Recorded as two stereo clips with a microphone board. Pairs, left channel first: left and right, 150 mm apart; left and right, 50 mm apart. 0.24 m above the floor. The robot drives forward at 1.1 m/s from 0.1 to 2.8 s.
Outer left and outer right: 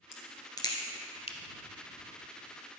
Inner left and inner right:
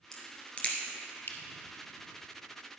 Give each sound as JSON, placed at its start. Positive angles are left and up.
{"t": 0.1, "sound": "a crack", "side_deg": 20, "distance_m": 2.0}